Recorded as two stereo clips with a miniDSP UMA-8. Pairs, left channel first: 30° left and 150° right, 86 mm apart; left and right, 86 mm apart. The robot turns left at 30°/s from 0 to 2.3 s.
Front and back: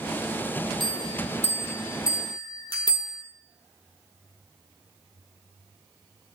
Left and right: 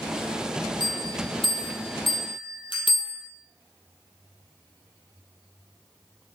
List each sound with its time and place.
0.8 s a bell: 120° left, 3 m; by 3.2 s 75° left, 3 m